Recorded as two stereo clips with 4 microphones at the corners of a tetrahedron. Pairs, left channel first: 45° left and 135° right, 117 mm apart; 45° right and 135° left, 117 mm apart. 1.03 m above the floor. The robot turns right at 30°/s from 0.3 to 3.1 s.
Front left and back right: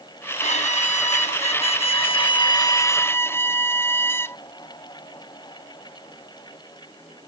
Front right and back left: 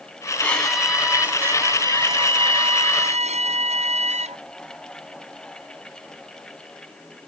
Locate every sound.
0.4 s a violin: 35° left; by 4.4 s 115° left